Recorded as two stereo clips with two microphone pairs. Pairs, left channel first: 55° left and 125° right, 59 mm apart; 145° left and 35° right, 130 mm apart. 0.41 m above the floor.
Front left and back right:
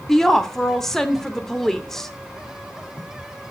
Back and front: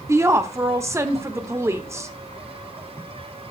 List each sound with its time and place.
0.1 s a woman speaking: 15° right, 0.9 m